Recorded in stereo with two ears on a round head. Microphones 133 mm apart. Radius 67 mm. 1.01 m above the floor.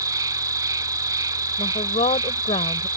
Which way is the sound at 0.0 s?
25° right (ahead or behind).